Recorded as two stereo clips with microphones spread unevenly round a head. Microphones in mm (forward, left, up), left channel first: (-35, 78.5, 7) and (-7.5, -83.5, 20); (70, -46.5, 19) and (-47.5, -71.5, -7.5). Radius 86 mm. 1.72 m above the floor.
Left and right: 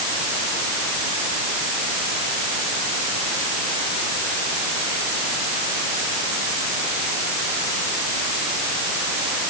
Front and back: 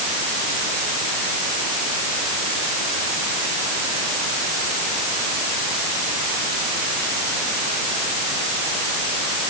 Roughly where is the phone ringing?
No phone ringing in this recording.